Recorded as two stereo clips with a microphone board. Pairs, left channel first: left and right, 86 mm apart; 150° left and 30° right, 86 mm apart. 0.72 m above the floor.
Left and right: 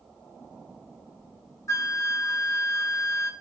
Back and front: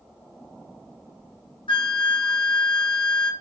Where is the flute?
145° left, 1.7 m.